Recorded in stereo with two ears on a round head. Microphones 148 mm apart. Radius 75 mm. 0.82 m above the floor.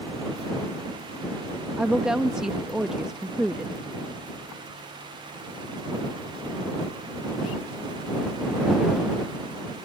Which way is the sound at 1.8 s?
5° right (ahead or behind).